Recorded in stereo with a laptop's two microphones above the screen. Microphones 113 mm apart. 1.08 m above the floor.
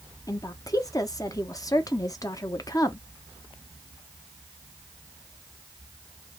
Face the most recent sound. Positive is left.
turn(degrees=30)  # may be behind; listen again after turning